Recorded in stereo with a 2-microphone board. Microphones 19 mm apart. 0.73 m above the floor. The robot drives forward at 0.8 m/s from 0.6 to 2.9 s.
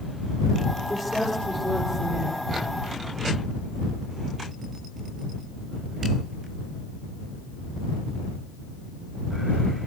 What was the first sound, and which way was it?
A woman speaking, 20° left (ahead or behind).